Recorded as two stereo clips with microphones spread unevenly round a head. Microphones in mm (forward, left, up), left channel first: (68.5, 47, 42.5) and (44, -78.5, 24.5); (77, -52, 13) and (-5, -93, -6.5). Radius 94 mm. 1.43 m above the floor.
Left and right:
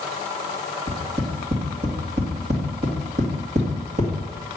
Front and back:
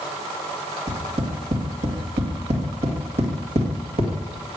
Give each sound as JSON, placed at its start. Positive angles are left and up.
{"t": 0.9, "sound": "tapping", "azimuth_deg": -150, "distance_m": 2.0}